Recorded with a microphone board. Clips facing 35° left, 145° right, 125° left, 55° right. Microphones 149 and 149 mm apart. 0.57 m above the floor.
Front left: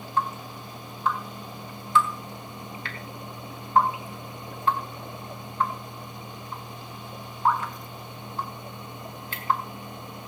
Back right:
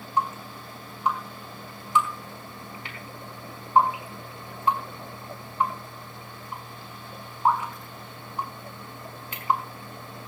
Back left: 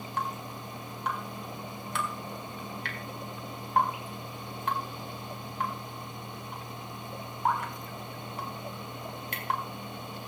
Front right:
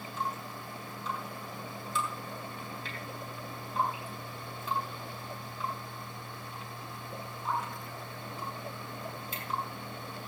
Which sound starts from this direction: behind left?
Dripping, at 0.2 s.